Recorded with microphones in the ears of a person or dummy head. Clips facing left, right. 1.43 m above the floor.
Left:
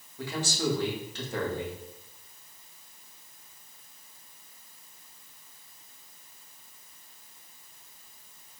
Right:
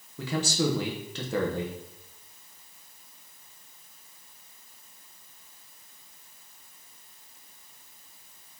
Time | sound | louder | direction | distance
0.2 | a man speaking | right 3 dB | 65° right (ahead or behind) | 0.9 m